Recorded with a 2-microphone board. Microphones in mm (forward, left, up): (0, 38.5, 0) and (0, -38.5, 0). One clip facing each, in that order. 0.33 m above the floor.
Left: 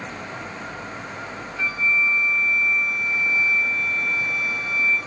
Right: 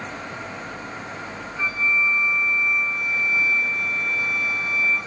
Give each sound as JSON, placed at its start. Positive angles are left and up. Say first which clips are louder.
{"t": 1.6, "sound": "a flute", "louder": "even", "side_deg": -20, "distance_m": 2.5}